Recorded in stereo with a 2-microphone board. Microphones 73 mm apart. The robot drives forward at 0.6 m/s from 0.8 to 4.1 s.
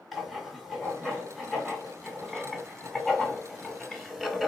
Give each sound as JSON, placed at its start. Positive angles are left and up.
{"t": 0.1, "sound": "writing", "side_deg": 0, "distance_m": 2.5}